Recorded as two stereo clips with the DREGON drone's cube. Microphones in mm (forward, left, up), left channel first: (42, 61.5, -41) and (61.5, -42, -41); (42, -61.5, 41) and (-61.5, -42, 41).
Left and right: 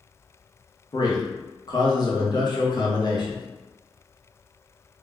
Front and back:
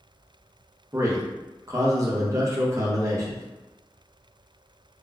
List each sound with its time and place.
0.9 s a man speaking: 120° left, 0.7 m